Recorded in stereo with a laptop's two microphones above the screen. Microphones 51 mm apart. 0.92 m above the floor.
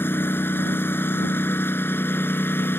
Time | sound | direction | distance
0.0 | a lawn mower | 45° left (ahead or behind) | ?